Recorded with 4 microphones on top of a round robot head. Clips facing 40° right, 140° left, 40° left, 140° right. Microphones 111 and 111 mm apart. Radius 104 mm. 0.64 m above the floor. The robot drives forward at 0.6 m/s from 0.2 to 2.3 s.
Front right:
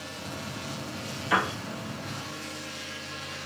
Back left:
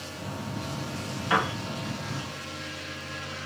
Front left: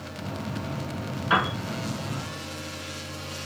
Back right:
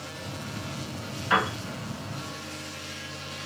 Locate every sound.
1.3 s a piano: 115° left, 2.0 m; by 1.6 s 120° left, 2 m